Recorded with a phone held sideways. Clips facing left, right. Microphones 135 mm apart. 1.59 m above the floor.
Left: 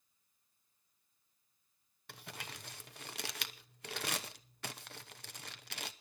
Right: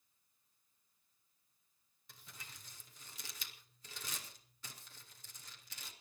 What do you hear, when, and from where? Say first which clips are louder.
2.1 s crumpling: left 10 dB; 75° left (ahead or behind), 1.0 m